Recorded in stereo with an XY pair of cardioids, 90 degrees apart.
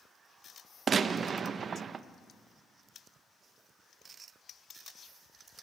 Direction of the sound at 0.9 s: 55° right.